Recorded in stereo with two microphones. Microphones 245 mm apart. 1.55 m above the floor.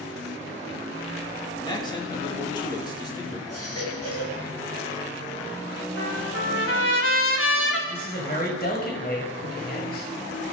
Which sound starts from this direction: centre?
A man speaking, at 1.6 s.